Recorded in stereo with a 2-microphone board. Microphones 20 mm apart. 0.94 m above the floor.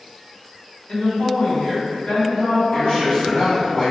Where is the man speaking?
50° left (ahead or behind), 1.3 m.